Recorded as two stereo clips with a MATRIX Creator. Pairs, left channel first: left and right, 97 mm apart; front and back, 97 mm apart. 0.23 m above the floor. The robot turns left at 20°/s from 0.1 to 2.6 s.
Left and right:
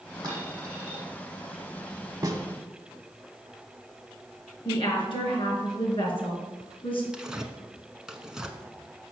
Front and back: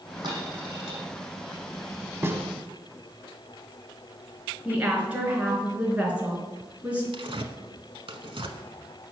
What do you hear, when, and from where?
0.2 s a dropped coin: 140° right, 5 m; by 1.0 s 155° right, 5 m
2.2 s a snare drum: 125° right, 1.1 m; by 2.4 s 130° right, 1.1 m
4.7 s a woman speaking: 105° left, 3.5 m
7.1 s tearing paper: 175° right, 1.0 m